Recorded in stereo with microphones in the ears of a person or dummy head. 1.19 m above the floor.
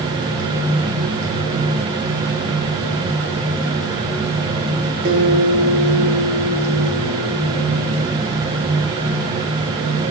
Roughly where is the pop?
No pop in this recording.